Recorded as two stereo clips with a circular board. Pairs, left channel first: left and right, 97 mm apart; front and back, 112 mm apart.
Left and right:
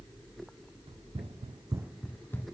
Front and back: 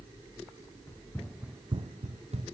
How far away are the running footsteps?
About 1.4 m.